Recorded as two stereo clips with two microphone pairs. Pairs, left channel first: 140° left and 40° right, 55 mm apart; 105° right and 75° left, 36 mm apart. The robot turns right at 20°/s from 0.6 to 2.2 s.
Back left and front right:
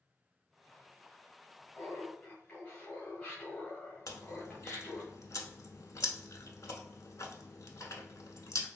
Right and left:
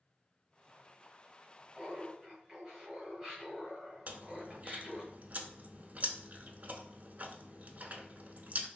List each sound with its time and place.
1.8 s laughter: 165° left, 1.4 m; by 5.1 s 170° left, 1.4 m
4.1 s chewing: 120° left, 0.6 m